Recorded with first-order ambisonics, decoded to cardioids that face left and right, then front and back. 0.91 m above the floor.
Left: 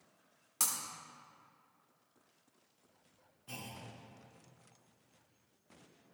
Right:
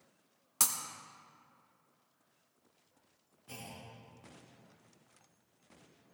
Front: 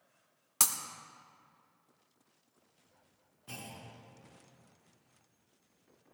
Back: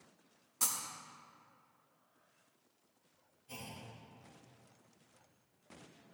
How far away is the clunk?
About 4.5 m.